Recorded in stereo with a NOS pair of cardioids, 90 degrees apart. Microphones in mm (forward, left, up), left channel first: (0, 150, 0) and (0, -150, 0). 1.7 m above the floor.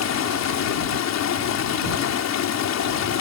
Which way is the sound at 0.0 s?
70° left.